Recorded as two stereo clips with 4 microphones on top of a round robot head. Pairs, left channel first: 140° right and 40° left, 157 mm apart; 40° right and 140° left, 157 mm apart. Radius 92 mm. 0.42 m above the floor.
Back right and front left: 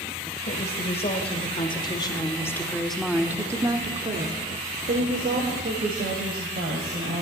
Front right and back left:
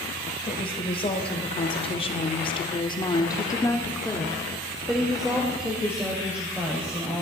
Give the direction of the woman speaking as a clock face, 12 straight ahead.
3 o'clock.